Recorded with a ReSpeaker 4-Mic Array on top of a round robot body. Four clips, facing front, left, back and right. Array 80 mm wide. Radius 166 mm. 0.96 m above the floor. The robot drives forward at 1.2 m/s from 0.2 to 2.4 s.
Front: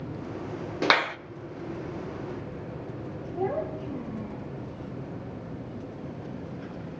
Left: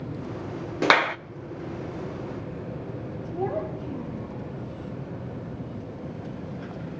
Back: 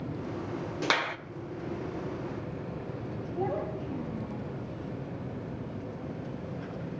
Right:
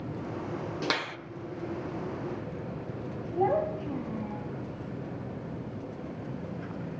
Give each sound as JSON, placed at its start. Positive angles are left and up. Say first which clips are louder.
{"t": 0.8, "sound": "a clap", "louder": "left 14 dB, front 6 dB", "azimuth_deg": 55, "distance_m": 0.6}
{"t": 3.3, "sound": "a child speaking", "louder": "right 3 dB, front 3 dB", "azimuth_deg": -90, "distance_m": 6.0}